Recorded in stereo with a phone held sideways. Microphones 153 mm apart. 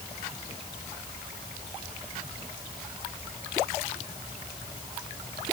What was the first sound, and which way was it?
Only background noise.